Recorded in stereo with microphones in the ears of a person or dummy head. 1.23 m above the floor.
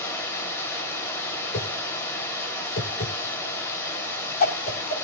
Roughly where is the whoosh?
Left.